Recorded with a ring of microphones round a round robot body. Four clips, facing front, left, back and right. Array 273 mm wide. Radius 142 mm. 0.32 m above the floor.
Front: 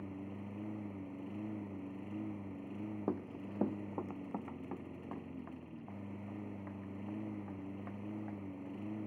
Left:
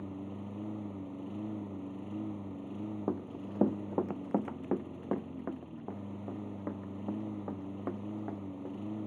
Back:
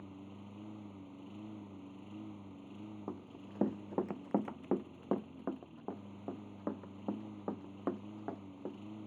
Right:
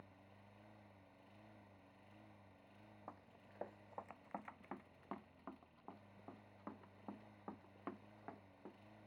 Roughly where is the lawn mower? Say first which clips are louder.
Left 23 dB, front 5 dB; left.